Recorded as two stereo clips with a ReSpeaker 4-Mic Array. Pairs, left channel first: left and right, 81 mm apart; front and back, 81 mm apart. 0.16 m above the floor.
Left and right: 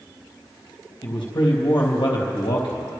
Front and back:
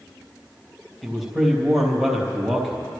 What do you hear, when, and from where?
1.0 s a man speaking: 90° left, 3.5 m